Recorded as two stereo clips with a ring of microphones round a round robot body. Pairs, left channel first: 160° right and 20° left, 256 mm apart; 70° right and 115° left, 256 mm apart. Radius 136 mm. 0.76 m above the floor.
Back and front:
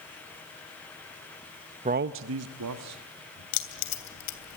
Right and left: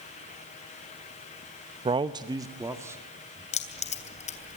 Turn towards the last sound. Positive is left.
turn(degrees=-135)